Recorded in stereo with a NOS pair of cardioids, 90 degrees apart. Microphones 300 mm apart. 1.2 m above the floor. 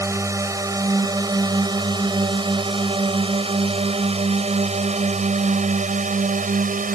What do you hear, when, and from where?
0.0 s a drone: 10° right; by 7.0 s 30° right